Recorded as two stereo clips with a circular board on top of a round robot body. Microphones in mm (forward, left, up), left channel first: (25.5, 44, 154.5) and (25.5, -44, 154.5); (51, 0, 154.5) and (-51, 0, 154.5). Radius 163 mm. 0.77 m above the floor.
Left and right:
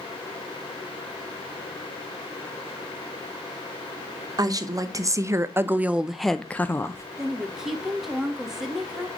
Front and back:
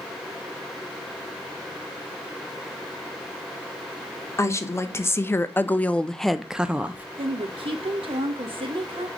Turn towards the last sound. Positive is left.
turn(degrees=-175)